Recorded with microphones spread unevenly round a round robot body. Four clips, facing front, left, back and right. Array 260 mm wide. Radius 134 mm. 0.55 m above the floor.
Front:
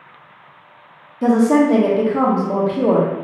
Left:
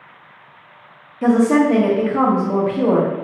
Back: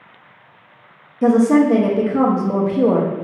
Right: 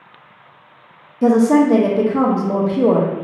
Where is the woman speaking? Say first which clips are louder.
Right 2 dB, back 1 dB; 100° right, 0.8 m.